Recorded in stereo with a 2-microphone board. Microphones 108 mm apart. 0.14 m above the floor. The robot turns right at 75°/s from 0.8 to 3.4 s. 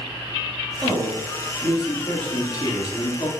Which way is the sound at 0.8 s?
90° right.